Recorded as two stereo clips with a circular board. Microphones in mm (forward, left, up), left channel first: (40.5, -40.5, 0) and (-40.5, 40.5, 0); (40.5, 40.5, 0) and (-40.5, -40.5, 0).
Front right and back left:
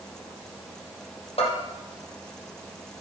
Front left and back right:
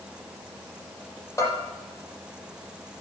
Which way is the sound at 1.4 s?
15° right.